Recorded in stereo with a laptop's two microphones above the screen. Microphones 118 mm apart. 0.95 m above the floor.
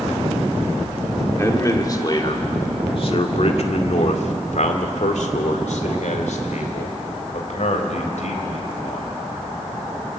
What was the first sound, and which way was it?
A man speaking, 25° left (ahead or behind).